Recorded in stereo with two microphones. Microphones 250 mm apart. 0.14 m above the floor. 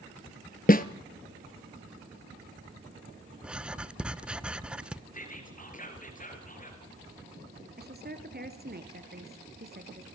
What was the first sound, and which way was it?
A snare drum, 35° left (ahead or behind).